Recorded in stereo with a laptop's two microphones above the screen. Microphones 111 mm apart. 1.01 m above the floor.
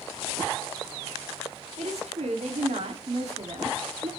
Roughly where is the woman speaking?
Right.